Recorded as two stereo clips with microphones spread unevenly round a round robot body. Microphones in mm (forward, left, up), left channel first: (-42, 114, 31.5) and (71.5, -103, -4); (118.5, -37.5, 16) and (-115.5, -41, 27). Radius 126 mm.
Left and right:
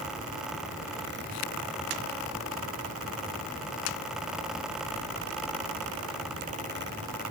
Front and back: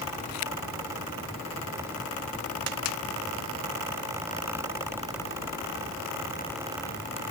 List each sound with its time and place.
Only background noise.